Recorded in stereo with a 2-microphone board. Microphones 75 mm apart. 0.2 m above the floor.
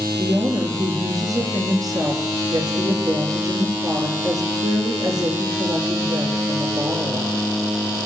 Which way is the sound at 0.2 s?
55° right (ahead or behind).